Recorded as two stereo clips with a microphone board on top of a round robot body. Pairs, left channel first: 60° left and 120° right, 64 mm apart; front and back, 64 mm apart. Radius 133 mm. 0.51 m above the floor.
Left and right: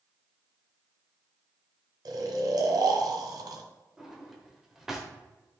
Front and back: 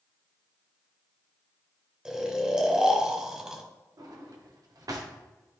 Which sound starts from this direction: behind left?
A drawer, at 4.0 s.